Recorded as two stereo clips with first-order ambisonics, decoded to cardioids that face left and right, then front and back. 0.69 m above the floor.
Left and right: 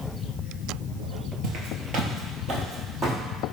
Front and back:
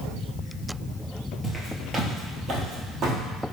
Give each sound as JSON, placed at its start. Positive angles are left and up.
{"t": 1.4, "sound": "footsteps", "azimuth_deg": -105, "distance_m": 0.9}